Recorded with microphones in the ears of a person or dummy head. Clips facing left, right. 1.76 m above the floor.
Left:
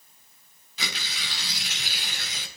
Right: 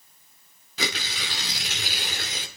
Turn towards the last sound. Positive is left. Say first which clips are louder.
# right 7 dB
turn(degrees=-40)  # may be behind; listen again after turning